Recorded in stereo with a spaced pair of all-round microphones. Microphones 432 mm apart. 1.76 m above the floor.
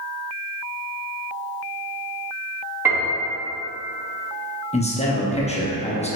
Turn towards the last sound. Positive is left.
turn(degrees=15)  # may be behind; listen again after turning